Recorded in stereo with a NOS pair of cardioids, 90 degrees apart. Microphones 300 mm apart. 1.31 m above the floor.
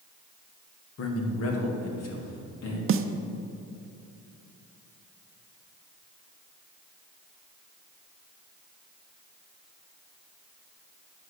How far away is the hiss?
No hiss in this recording.